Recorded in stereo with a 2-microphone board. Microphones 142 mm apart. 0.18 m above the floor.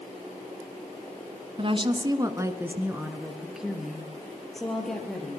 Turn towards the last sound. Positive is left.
turn(degrees=5)  # may be behind; listen again after turning